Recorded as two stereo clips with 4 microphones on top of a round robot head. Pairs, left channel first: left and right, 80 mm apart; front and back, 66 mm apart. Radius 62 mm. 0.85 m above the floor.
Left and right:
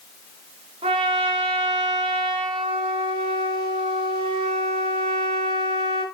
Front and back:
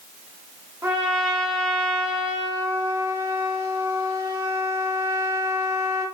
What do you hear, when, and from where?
0.8 s a trumpet: 110° right, 3.5 m